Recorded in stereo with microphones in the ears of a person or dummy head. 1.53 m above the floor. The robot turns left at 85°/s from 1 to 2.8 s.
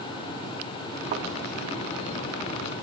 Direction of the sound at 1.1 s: 35° right (ahead or behind).